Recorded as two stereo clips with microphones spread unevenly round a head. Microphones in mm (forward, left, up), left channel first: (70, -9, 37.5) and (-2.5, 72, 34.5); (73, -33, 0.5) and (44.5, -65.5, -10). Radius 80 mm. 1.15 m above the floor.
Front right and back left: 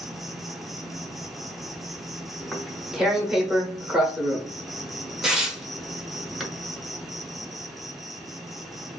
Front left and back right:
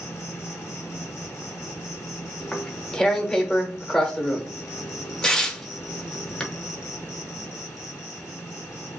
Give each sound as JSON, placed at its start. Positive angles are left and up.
{"t": 0.0, "sound": "an insect", "azimuth_deg": 45, "distance_m": 0.8}
{"t": 2.4, "sound": "tearing paper", "azimuth_deg": 50, "distance_m": 0.9}